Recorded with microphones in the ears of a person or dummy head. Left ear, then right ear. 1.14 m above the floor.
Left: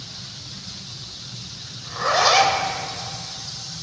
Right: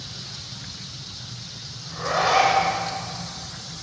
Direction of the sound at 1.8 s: 50° left (ahead or behind).